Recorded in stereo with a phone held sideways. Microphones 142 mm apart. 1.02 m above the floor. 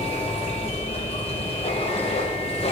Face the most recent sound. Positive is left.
turn(degrees=50)  # may be behind; listen again after turning